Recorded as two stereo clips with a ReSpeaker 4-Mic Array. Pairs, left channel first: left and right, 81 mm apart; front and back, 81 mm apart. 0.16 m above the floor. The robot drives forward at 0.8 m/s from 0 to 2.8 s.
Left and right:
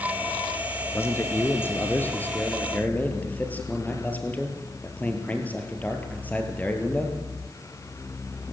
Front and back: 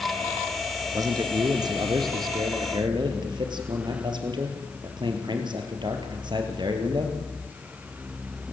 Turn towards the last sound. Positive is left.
turn(degrees=160)